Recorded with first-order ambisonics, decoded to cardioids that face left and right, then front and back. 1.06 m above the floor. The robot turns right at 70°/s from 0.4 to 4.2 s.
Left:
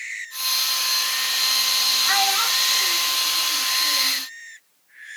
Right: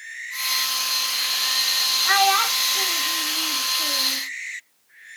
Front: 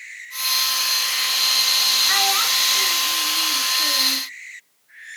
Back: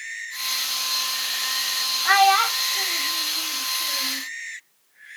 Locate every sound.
2.0 s a child speaking: 175° right, 1.0 m; by 4.2 s 25° right, 1.0 m